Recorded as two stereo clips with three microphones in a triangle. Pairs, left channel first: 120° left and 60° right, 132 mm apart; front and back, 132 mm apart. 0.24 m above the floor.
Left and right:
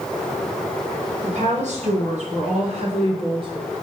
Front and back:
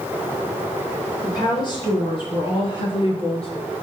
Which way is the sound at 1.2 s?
55° right.